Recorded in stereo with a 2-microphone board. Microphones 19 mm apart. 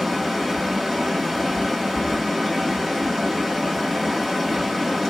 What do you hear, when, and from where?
0.0 s running water: 15° left (ahead or behind), 1.8 m